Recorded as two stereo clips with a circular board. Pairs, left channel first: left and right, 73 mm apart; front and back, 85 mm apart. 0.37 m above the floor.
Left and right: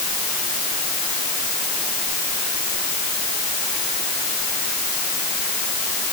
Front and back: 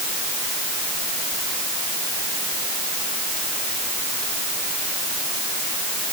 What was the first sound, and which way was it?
Only background noise.